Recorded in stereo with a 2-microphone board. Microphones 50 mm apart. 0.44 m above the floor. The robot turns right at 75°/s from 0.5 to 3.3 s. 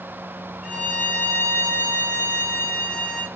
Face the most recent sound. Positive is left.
turn(degrees=-170)